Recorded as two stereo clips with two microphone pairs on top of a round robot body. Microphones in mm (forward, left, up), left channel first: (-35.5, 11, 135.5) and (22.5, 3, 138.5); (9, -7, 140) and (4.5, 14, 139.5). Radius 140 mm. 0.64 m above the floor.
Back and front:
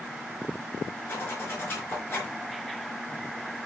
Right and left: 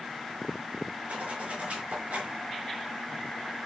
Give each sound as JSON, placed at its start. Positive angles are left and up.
{"t": 1.1, "sound": "a zipper", "azimuth_deg": 115, "distance_m": 4.5}